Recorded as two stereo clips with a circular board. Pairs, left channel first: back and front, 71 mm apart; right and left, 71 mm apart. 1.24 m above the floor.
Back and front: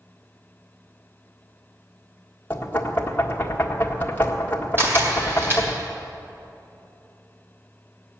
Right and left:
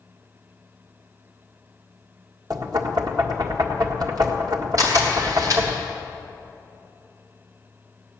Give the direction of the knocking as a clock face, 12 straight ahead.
8 o'clock.